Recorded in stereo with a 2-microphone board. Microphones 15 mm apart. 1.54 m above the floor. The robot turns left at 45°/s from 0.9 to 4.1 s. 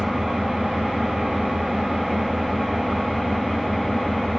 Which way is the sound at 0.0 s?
100° right.